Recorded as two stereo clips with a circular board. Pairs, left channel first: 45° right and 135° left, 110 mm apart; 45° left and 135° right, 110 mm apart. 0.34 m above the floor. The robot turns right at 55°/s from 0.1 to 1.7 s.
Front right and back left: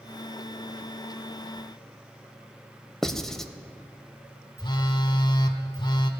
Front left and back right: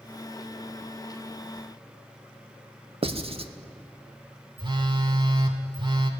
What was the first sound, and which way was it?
Writing, 130° right.